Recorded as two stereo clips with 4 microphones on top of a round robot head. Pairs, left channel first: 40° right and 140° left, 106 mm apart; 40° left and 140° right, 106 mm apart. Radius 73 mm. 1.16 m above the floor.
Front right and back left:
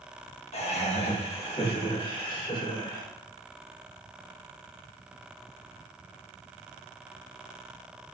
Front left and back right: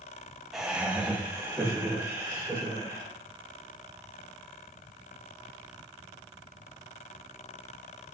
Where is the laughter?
55° right, 1.6 m; by 3.1 s 85° right, 4 m.